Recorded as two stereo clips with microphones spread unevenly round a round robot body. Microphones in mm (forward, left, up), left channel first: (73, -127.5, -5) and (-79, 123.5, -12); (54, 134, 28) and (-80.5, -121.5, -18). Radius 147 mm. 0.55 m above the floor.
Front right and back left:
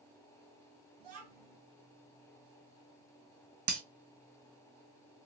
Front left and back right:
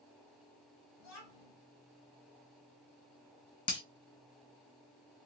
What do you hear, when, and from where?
1.0 s a child speaking: 105° left, 2.5 m
3.7 s breaking glass: 130° left, 1.4 m